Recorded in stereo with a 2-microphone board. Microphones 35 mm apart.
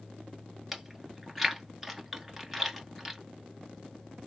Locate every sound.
0.7 s chewing: 10° right (ahead or behind), 1.0 m